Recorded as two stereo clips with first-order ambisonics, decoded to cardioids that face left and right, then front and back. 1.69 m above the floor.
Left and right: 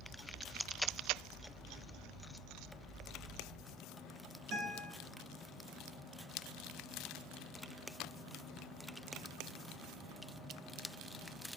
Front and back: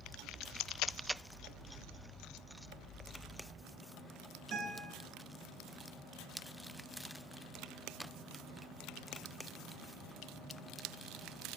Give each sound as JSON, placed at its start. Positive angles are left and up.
{"t": 4.5, "sound": "a guitar", "azimuth_deg": -135, "distance_m": 5.5}